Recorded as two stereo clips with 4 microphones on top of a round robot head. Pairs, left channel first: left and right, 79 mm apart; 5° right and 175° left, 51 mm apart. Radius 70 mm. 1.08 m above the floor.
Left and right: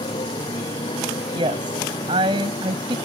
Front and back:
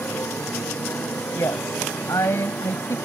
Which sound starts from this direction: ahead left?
A motorcycle, at 0.0 s.